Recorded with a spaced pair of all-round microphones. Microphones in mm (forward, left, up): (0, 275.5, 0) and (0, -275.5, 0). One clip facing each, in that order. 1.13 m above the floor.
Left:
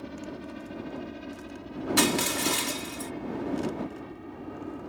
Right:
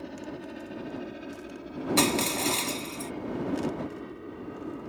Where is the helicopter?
30° left (ahead or behind); by 4.9 s 10° left (ahead or behind).